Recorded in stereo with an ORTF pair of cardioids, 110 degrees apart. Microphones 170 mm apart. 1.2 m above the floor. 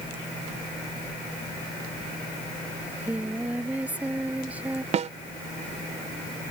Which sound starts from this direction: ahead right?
A snare drum, at 4.9 s.